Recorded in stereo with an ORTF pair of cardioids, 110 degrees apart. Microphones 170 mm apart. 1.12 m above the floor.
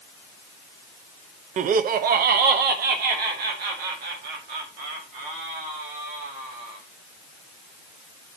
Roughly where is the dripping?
No dripping in this recording.